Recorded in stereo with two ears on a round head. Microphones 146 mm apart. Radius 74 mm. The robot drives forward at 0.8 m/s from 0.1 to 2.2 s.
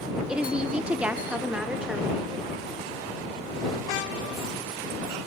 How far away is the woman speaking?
About 0.8 m.